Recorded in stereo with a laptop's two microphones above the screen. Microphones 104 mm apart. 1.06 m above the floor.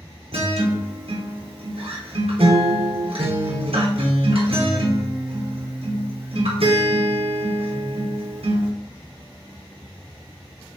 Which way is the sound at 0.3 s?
70° right (ahead or behind).